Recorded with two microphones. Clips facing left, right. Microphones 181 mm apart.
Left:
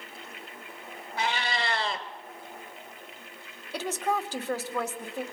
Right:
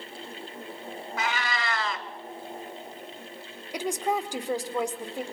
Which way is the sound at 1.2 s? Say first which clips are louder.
Left 1 dB; 30° left (ahead or behind).